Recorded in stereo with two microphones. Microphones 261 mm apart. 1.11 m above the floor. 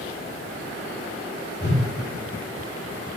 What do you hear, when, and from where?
1.6 s a whoosh: 40° left (ahead or behind), 4.5 m